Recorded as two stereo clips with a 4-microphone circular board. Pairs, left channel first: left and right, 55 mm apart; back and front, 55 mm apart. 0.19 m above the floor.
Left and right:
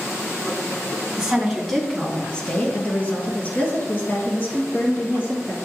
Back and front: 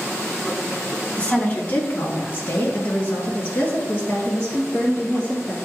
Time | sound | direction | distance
1.2 | a woman speaking | 150° right | 1.4 m